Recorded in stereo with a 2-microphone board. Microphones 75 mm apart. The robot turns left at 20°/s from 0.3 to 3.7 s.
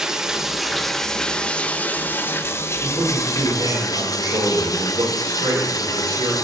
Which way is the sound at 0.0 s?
170° right.